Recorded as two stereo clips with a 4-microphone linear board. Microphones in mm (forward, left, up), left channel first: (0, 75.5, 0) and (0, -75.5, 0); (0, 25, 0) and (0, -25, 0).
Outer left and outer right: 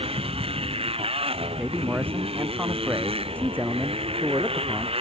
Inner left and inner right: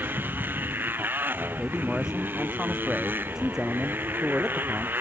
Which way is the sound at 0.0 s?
40° right (ahead or behind).